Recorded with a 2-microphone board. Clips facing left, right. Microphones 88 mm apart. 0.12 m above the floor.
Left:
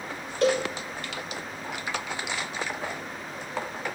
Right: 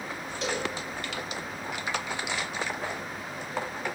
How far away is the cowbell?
About 2 m.